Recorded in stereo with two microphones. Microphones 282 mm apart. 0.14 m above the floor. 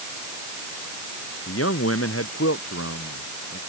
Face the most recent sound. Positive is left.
turn(degrees=55)  # may be behind; listen again after turning